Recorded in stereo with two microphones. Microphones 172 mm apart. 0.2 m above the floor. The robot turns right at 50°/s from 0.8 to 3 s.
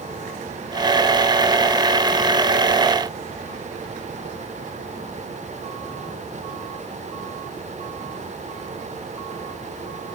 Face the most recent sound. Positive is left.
No sound to turn to.